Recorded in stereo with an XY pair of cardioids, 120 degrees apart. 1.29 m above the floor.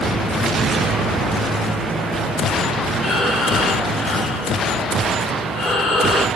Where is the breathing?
50° left, 3 m.